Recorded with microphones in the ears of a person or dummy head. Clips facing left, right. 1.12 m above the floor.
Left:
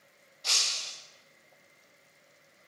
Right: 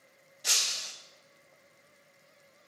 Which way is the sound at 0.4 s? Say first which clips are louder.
Even; 15° right (ahead or behind).